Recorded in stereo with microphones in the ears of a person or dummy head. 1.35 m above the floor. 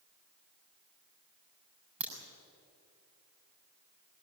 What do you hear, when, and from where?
2.0 s a crack: 10° right (ahead or behind), 7.5 m